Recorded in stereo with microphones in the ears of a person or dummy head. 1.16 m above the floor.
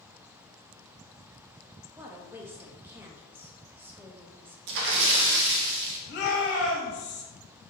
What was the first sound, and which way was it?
A woman speaking, 10° right (ahead or behind).